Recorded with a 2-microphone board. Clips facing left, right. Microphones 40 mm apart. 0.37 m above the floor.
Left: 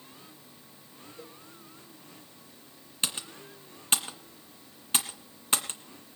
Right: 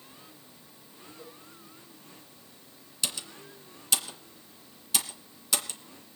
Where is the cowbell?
65° left (ahead or behind), 10 m.